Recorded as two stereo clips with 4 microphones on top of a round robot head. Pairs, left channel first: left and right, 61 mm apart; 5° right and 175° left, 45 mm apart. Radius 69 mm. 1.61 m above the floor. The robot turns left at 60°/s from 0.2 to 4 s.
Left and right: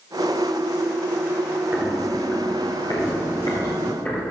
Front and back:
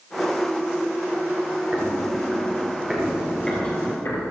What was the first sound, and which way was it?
Footsteps, 135° right.